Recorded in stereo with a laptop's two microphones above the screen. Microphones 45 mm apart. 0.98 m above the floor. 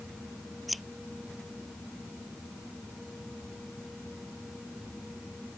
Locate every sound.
0.7 s scissors: centre (ahead or behind)